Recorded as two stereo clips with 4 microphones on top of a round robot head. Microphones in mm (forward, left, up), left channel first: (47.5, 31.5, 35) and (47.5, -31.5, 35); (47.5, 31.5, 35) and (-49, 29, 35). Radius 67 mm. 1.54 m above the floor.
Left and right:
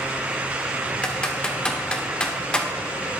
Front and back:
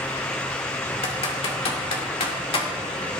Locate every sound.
1.0 s typing on a keyboard: 15° left, 2.5 m